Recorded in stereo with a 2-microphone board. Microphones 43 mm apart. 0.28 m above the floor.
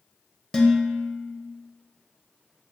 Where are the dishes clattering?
10° left (ahead or behind), 0.6 m.